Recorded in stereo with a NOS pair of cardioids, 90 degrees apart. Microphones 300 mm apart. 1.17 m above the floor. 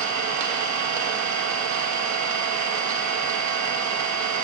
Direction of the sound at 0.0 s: 70° right.